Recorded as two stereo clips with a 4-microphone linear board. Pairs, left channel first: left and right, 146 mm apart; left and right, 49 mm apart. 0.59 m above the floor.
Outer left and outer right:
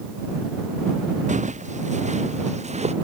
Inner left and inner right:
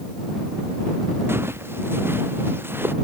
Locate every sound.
1.3 s footsteps: 55° right (ahead or behind); by 2.9 s 50° right (ahead or behind)